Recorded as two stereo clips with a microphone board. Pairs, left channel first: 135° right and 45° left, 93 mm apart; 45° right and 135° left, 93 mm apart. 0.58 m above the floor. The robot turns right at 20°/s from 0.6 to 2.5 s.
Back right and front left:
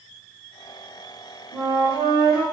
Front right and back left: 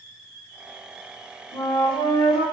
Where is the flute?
65° right, 2 m; by 2.5 s 50° right, 2 m.